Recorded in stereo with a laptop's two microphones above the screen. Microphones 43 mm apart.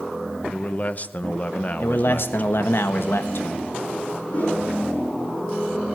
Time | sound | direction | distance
0.5 | a man speaking | 35° left (ahead or behind) | 0.7 m
1.8 | a man speaking | 60° left (ahead or behind) | 1.2 m
4.3 | a whoosh | 35° left (ahead or behind) | 5 m